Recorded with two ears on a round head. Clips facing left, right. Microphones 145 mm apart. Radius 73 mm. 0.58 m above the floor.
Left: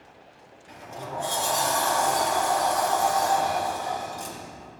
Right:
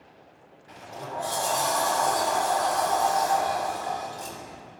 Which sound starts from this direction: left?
A sliding door, at 0.7 s.